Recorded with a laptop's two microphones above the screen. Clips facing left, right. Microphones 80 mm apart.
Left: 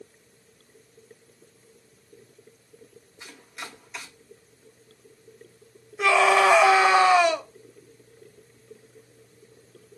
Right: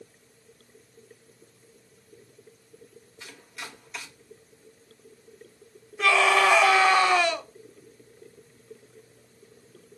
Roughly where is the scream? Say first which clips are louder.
Left 2 dB; centre.